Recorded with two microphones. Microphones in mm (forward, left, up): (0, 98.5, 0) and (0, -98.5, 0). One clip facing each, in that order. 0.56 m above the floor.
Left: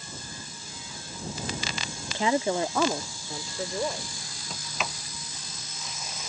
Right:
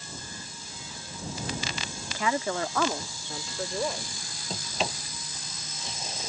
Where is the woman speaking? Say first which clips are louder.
Left 4 dB; 30° left (ahead or behind); by 4.1 s centre (ahead or behind).